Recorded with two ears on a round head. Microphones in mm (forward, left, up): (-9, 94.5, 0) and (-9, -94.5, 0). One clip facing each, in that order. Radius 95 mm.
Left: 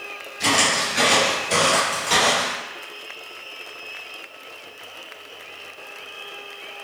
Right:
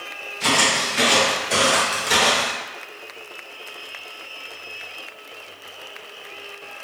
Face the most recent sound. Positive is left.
turn(degrees=-20)  # may be behind; listen again after turning